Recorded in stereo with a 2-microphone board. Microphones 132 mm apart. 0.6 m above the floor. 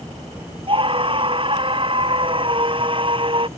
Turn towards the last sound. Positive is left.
turn(degrees=-40)  # may be behind; listen again after turning